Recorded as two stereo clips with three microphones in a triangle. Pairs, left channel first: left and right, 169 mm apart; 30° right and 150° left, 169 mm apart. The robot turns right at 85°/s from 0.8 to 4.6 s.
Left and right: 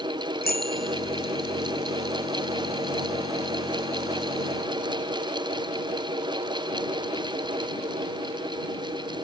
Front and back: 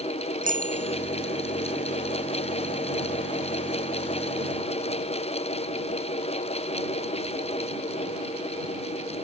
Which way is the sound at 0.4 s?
115° left.